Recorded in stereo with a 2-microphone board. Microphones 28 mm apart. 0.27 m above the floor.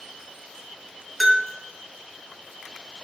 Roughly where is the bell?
Centre.